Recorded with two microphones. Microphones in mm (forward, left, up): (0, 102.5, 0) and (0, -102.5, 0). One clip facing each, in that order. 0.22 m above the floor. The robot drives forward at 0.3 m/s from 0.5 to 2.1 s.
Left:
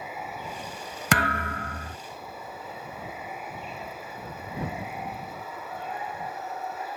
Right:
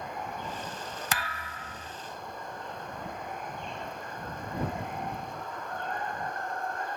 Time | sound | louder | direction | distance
0.0 | running water | even | 5° left (ahead or behind) | ?
1.1 | a thud | left 10 dB | 75° left (ahead or behind) | ?